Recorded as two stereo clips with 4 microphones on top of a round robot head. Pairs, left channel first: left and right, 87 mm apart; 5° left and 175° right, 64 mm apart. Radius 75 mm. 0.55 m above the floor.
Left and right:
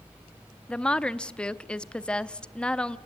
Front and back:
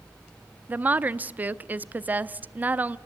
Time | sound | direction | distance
0.7 | a woman speaking | 155° left | 0.7 m